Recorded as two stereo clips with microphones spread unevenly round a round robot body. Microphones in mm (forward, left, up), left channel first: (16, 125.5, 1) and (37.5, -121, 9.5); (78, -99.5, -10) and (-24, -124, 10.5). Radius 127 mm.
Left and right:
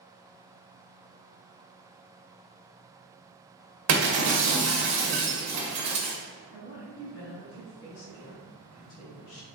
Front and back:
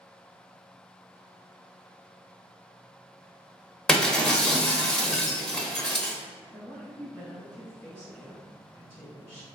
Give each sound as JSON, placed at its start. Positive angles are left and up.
{"t": 3.9, "sound": "breaking glass", "azimuth_deg": -70, "distance_m": 0.9}
{"t": 6.5, "sound": "a woman speaking", "azimuth_deg": 85, "distance_m": 1.5}